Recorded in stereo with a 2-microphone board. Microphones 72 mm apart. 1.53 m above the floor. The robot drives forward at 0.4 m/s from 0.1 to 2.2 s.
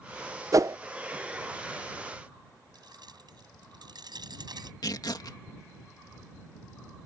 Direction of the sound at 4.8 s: 70° left (ahead or behind).